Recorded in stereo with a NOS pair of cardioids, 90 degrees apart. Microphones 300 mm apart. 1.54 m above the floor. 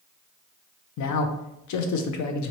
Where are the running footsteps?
I don't hear running footsteps.